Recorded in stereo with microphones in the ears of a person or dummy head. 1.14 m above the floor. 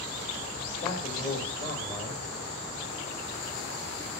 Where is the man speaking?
35° left (ahead or behind), 2.0 m.